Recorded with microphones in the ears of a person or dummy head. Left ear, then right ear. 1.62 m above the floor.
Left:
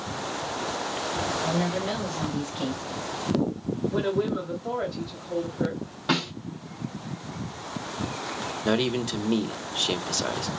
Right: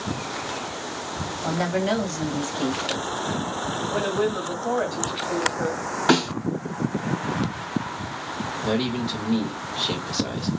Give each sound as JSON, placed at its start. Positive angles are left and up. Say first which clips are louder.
{"t": 1.4, "sound": "a woman speaking", "louder": "right 3 dB", "side_deg": -50, "distance_m": 1.8}
{"t": 3.9, "sound": "a woman speaking", "louder": "right 2 dB", "side_deg": -50, "distance_m": 1.9}
{"t": 6.1, "sound": "a snare drum", "louder": "right 6 dB", "side_deg": -45, "distance_m": 2.5}
{"t": 8.7, "sound": "a man speaking", "louder": "left 1 dB", "side_deg": 60, "distance_m": 0.9}